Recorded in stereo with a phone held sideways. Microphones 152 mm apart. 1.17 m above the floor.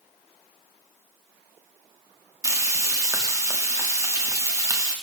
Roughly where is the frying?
Right.